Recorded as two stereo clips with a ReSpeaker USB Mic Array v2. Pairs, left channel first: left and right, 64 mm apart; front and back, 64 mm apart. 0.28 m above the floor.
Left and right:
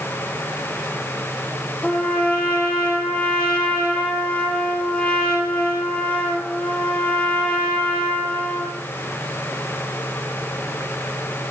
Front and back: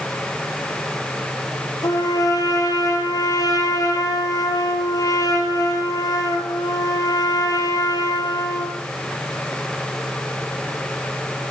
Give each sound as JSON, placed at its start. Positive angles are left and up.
{"t": 1.8, "sound": "a trumpet", "azimuth_deg": 20, "distance_m": 4.5}